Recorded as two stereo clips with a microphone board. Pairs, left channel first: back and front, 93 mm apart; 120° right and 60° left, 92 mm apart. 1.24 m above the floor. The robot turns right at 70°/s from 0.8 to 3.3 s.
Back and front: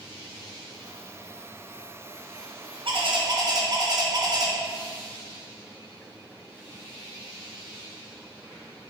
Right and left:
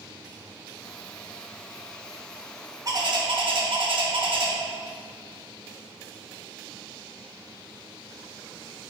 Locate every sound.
2.9 s a bird: 10° left, 1.5 m; by 4.5 s 45° left, 1.5 m